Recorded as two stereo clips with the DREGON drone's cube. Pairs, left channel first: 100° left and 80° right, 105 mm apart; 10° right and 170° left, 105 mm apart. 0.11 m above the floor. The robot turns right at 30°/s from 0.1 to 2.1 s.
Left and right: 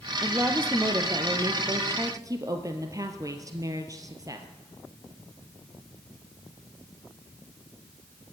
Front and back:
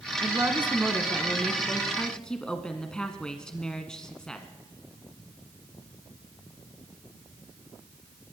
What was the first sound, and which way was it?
A woman speaking, 145° right.